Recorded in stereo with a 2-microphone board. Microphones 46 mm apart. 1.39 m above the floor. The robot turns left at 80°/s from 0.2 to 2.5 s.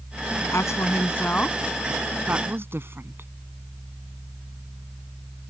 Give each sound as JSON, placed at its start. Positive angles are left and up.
{"t": 0.5, "sound": "a woman speaking", "side_deg": 75}